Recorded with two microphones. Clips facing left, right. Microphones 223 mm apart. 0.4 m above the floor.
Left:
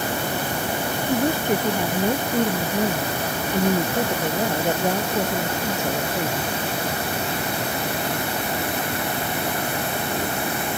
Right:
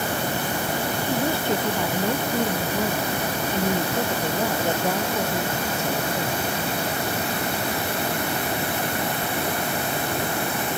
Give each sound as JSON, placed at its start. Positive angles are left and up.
{"t": 1.1, "sound": "a woman speaking", "side_deg": 15}